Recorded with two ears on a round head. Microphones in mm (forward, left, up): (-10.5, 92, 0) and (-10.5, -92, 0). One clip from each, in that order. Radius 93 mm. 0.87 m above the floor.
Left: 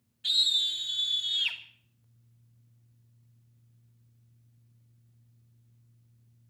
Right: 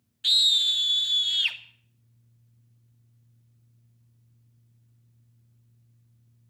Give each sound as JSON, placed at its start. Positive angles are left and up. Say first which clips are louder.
{"t": 0.2, "sound": "a scream", "louder": "right 5 dB", "side_deg": -45, "distance_m": 1.3}